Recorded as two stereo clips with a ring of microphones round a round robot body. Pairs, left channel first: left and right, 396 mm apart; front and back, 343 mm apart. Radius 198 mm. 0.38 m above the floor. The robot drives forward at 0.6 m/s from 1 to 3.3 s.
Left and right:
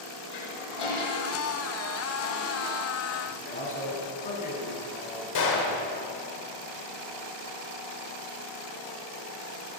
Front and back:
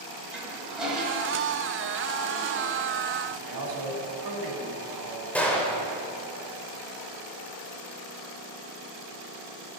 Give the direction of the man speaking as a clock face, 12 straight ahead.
7 o'clock.